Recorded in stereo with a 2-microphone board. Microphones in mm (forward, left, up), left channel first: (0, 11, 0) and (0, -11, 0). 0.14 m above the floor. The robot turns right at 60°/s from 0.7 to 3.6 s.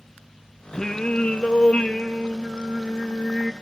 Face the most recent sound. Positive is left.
turn(degrees=-165)